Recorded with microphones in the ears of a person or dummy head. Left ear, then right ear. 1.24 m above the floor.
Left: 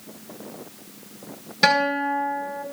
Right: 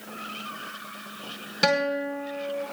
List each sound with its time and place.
1.6 s a guitar: centre (ahead or behind), 5 m